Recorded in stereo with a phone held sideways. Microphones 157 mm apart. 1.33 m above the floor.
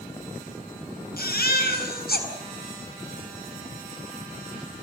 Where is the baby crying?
75° left (ahead or behind), 6 m.